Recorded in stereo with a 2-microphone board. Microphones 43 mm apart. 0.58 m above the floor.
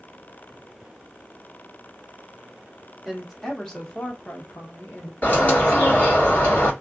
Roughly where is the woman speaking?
Centre.